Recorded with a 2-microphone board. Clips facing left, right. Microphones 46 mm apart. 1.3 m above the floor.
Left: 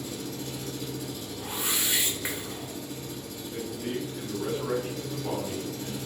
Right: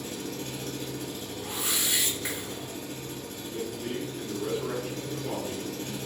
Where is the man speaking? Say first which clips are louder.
Left 1 dB; 45° left (ahead or behind), 1.9 m.